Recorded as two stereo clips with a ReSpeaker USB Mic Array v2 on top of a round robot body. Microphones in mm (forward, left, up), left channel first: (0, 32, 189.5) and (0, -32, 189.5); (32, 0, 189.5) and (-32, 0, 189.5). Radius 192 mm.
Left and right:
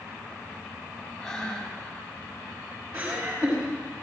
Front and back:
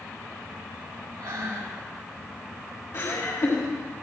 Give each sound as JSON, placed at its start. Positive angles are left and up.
{"t": 1.2, "sound": "breathing", "azimuth_deg": 155, "distance_m": 4.0}
{"t": 2.9, "sound": "laughter", "azimuth_deg": -20, "distance_m": 5.0}